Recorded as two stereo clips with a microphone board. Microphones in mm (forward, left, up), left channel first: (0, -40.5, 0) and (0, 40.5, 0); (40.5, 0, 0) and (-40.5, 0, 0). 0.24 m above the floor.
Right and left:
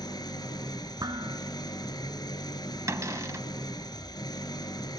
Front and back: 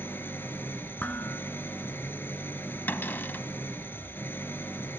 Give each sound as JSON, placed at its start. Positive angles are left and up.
{"t": 0.0, "sound": "an engine running", "azimuth_deg": -60, "distance_m": 2.0}
{"t": 1.0, "sound": "dishes clattering", "azimuth_deg": 70, "distance_m": 2.0}
{"t": 2.9, "sound": "a cupboard door", "azimuth_deg": 55, "distance_m": 0.8}